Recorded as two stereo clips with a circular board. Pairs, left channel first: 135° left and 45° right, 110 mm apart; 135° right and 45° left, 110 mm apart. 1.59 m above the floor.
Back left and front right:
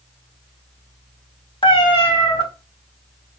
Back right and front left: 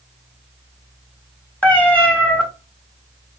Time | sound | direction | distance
1.6 | a cat meowing | 150° left | 1.3 m